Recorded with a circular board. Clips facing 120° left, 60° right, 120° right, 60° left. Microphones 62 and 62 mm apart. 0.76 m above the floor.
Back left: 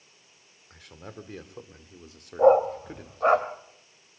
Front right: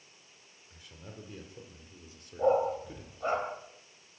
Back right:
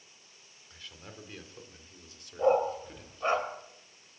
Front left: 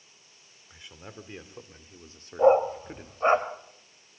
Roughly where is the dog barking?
Behind left.